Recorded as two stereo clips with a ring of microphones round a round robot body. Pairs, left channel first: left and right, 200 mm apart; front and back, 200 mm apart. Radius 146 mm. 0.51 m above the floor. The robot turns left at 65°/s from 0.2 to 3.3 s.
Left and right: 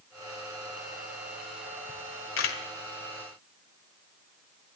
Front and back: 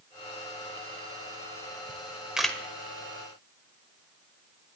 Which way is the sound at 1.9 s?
125° left.